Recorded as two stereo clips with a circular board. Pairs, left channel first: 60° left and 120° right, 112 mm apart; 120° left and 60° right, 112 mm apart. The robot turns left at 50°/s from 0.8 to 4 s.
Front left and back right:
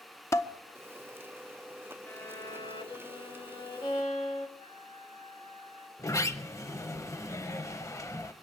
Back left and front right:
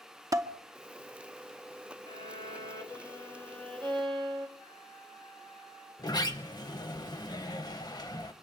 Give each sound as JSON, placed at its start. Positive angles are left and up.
{"t": 0.3, "sound": "dishes clattering", "azimuth_deg": 0, "distance_m": 0.6}
{"t": 2.1, "sound": "a violin", "azimuth_deg": 125, "distance_m": 1.2}
{"t": 4.6, "sound": "a flute", "azimuth_deg": 80, "distance_m": 7.0}
{"t": 6.0, "sound": "a sliding door", "azimuth_deg": 105, "distance_m": 0.6}